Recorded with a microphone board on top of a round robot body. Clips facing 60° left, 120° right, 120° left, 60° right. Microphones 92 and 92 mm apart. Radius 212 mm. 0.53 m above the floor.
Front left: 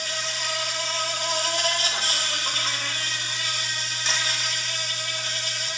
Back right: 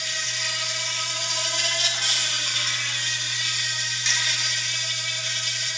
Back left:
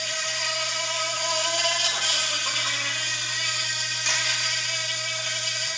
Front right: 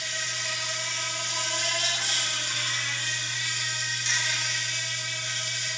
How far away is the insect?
About 5.5 m.